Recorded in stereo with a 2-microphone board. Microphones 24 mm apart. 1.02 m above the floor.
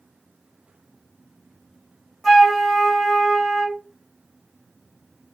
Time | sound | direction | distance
2.2 | a flute | centre (ahead or behind) | 1.3 m